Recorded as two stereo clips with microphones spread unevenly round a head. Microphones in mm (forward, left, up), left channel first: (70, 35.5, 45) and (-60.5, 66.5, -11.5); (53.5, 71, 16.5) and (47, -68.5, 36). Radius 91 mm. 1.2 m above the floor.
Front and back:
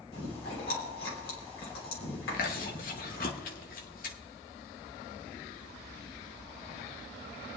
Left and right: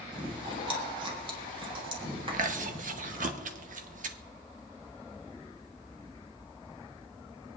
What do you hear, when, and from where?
0.1 s chewing: 40° right, 3 m
2.3 s chewing: 60° right, 0.9 m